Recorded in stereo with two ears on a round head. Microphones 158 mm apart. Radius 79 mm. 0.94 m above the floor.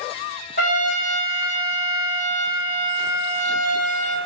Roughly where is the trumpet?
Left.